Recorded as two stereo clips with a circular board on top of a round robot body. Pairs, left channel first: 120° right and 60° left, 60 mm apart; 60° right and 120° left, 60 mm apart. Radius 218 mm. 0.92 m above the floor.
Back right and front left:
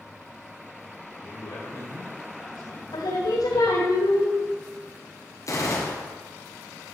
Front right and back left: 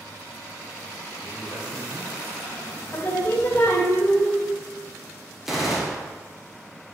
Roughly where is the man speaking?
Behind right.